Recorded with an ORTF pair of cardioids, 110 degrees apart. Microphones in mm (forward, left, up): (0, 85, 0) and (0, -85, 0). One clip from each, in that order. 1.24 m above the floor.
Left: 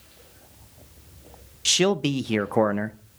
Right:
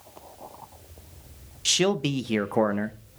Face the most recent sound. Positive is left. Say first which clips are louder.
# left 2 dB
turn(degrees=10)